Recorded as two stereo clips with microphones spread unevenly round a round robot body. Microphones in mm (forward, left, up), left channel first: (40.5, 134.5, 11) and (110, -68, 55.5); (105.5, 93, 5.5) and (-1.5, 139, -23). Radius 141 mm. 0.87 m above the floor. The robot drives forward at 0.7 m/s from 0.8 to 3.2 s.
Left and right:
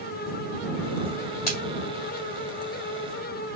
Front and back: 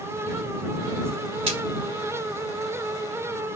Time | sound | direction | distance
1.5 | a splash | 165° right | 2.5 m